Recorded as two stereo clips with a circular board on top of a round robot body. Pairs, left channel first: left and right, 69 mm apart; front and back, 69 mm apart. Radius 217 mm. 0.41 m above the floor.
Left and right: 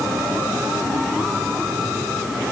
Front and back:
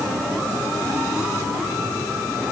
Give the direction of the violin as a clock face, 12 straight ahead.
I don't hear a violin.